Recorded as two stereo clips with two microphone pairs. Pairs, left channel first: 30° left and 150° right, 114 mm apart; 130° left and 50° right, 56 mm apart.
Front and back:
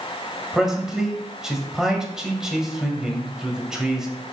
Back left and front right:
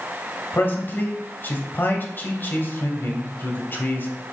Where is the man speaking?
130° left, 1.8 m.